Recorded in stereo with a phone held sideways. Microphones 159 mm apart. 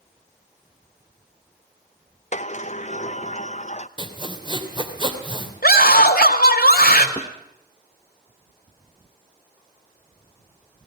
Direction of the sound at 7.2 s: 40° left (ahead or behind).